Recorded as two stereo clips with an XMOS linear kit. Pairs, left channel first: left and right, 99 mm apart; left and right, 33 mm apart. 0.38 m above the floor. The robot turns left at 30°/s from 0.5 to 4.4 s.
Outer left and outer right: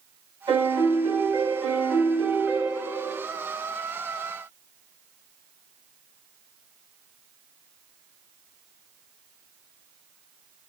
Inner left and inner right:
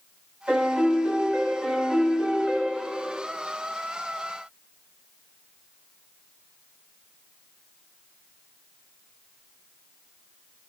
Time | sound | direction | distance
0.5 | a piano | 130° right | 3.5 m